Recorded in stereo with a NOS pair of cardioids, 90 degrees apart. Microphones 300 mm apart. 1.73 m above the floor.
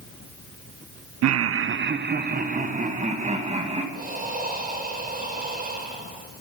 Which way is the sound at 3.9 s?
30° right.